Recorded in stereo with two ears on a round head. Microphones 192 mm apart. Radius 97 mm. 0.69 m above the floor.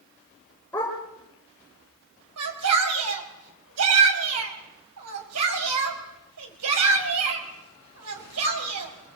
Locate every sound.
0.7 s a dog barking: 5° left (ahead or behind), 9 m
2.4 s a shout: 75° right (ahead or behind), 5 m